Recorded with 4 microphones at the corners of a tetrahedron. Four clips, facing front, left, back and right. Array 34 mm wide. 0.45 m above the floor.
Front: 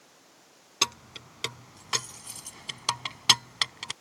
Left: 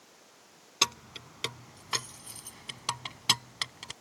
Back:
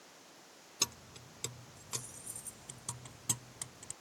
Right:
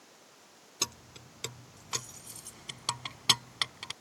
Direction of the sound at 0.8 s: 40° left.